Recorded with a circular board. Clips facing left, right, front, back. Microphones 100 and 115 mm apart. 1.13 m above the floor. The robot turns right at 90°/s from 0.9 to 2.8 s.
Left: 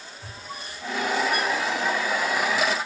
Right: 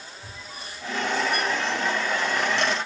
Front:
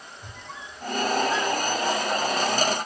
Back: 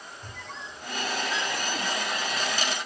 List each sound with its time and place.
0.2 s a squeak: 80° left, 1.5 m; by 1.9 s 170° left, 1.5 m